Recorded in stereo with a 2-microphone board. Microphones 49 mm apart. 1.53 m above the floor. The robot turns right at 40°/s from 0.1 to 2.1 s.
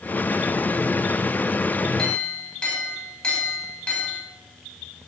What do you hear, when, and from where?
2.0 s a clink: 20° left (ahead or behind), 5 m; by 4.2 s 25° left (ahead or behind), 5 m